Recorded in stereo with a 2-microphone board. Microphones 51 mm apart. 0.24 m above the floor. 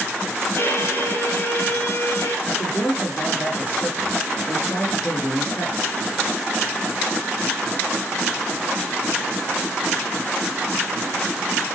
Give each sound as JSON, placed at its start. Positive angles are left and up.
{"t": 0.6, "sound": "a violin", "side_deg": 65, "distance_m": 3.5}
{"t": 2.5, "sound": "a man speaking", "side_deg": 45, "distance_m": 2.5}